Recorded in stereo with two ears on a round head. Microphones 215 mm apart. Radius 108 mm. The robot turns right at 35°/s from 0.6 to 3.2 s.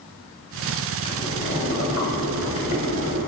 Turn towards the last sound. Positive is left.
turn(degrees=100)